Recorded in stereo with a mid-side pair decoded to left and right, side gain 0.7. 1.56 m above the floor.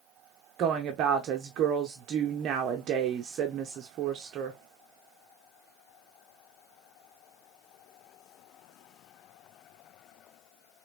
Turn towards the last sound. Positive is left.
turn(degrees=-50)